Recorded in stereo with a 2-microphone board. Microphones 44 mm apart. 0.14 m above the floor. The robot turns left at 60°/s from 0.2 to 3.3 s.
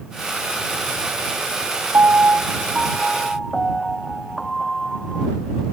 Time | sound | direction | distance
1.9 | a piano | 110° right | ?